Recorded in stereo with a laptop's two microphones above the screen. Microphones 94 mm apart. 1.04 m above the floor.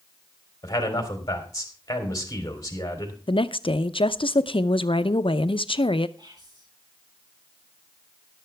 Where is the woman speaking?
70° left (ahead or behind), 0.6 m.